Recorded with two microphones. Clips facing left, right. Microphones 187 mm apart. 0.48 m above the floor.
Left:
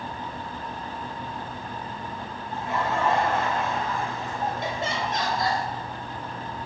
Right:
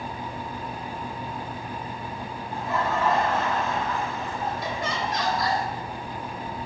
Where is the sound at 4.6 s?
25° left (ahead or behind), 2.5 m.